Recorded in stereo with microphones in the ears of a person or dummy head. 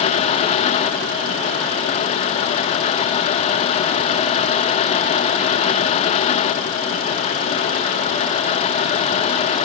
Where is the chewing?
No chewing in this recording.